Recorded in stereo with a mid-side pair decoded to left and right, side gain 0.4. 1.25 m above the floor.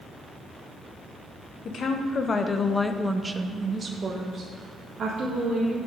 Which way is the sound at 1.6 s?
65° left.